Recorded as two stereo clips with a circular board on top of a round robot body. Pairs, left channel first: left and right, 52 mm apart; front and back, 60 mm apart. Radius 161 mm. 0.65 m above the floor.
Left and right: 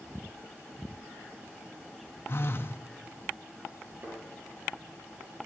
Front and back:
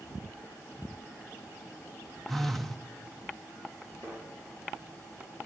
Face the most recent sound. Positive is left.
turn(degrees=-40)